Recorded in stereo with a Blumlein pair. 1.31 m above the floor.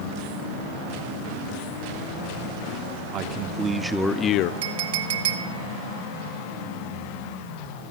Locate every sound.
3.1 s a man speaking: 35° right, 1.3 m; by 4.5 s 45° left, 0.7 m
4.6 s a clink: 55° right, 1.3 m